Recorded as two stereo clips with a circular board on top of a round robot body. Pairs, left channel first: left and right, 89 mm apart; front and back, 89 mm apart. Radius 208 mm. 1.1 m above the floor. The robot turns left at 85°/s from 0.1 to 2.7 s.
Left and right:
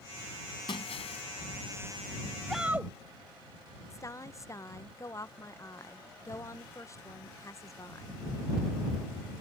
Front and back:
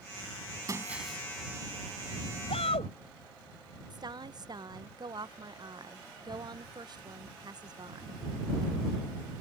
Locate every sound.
0.7 s breaking glass: 125° left; by 1.2 s 75° left
2.5 s a shout: 5° left; by 2.9 s 15° right
3.9 s a woman speaking: 145° left